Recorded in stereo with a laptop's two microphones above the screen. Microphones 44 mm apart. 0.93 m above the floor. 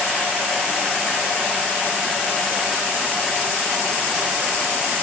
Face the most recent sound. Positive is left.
No sound to turn to.